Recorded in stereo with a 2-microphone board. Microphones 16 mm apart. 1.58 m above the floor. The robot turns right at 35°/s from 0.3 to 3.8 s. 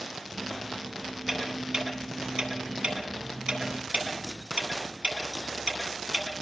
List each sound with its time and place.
1.3 s ticking: 10° right (ahead or behind), 9.5 m; by 6.4 s 80° right, 9.5 m